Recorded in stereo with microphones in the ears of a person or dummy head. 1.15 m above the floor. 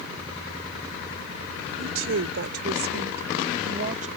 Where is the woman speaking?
80° right; by 4.1 s 40° right (ahead or behind).